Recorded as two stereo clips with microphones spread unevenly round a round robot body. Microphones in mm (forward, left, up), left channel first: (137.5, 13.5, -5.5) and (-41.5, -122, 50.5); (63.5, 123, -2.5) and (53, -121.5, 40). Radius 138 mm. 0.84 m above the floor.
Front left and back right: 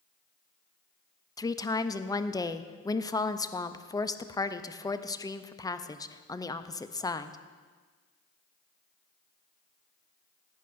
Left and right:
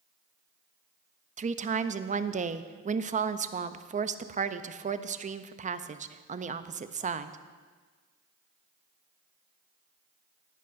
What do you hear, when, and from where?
1.4 s a woman speaking: 25° right, 0.6 m